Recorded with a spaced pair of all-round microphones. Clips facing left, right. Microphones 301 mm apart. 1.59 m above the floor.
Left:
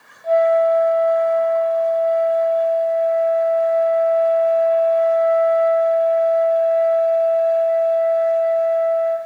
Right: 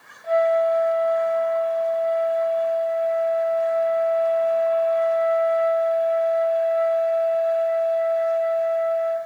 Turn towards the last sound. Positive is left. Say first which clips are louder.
# left 4 dB
turn(degrees=55)  # may be behind; listen again after turning